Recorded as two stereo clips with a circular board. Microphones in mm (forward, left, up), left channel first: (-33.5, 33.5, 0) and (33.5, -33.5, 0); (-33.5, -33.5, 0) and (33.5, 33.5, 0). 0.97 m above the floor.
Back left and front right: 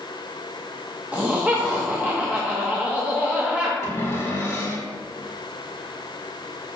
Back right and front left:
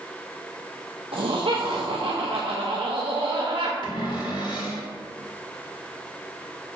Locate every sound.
1.1 s laughter: 30° left, 1.0 m
3.8 s a cupboard door: 165° right, 1.8 m